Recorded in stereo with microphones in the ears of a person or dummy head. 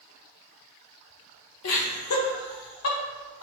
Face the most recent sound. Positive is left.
turn(degrees=75)  # may be behind; listen again after turning